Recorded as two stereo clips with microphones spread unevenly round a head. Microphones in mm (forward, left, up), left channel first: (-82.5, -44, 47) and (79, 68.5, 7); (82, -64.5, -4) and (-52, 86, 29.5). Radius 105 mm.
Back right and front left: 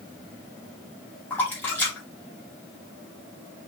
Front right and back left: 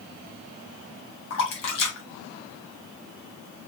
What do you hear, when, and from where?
1.3 s a splash: 70° right, 1.0 m